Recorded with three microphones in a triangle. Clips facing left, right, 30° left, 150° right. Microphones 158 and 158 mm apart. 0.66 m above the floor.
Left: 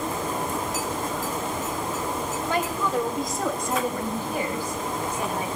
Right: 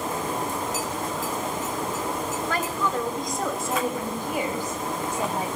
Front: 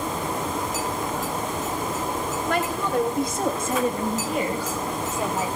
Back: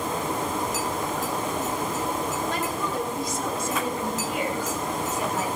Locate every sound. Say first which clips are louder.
2.5 s a woman speaking: left 3 dB, front 3 dB; 15° left, 3.5 m; by 5.5 s 35° right, 4 m